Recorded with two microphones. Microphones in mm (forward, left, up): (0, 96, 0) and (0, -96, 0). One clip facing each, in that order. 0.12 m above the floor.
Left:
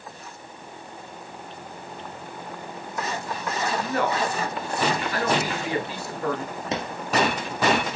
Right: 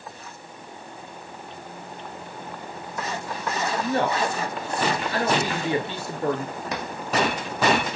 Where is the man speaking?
30° right (ahead or behind), 2 m.